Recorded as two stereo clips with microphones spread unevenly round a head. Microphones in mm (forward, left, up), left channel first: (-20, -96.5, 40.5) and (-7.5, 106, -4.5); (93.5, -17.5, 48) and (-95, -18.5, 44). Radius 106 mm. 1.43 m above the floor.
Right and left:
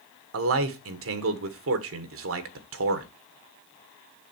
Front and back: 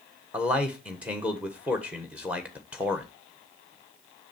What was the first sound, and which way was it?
A man speaking, 95° left.